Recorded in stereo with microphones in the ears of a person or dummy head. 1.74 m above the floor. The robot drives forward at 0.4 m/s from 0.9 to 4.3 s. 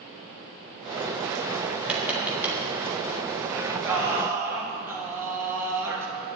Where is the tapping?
10° right (ahead or behind), 1.8 m.